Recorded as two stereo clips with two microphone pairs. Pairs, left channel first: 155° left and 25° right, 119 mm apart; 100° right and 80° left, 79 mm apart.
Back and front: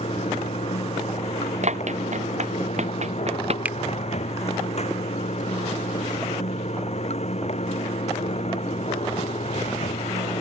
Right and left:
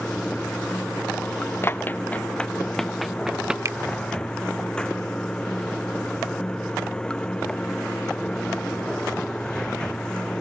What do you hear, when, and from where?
0.0 s running water: straight behind
1.6 s running footsteps: 40° right; by 3.5 s straight ahead
3.6 s a finger snap: 45° left